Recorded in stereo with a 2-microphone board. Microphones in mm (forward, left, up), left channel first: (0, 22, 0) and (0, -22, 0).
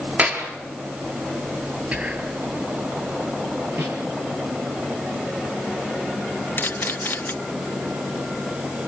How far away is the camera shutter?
About 2.0 m.